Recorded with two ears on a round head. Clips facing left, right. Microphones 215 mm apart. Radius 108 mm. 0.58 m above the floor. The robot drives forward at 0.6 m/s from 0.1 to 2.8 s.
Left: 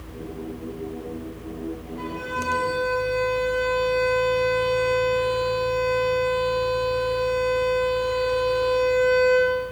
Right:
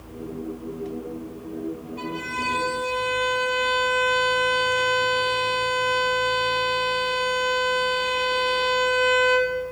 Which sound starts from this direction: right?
A violin, at 2.0 s.